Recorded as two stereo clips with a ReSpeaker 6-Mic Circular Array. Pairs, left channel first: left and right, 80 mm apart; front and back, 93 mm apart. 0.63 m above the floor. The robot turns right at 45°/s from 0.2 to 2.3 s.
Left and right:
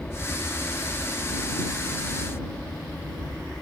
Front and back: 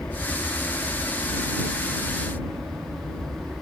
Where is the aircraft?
45° left; by 3.6 s 135° left.